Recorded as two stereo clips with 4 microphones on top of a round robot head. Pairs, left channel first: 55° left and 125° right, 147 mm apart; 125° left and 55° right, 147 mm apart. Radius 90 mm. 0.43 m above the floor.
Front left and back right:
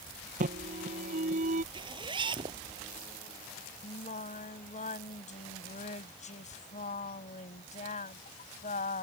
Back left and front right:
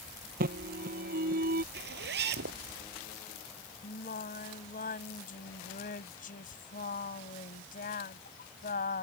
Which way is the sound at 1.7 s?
65° right.